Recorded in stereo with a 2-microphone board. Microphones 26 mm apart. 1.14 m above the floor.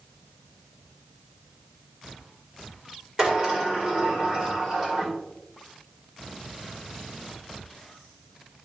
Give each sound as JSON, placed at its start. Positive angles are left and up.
{"t": 3.2, "sound": "a sliding door", "side_deg": -40, "distance_m": 2.0}